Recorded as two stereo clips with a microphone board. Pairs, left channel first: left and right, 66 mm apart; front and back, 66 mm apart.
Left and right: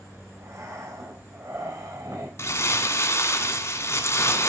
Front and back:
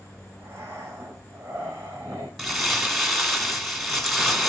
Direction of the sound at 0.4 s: 125° right.